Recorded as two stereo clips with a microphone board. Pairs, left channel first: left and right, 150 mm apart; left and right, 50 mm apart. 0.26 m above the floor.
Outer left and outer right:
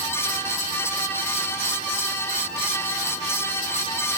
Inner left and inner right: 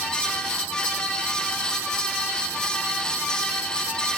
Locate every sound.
Only background noise.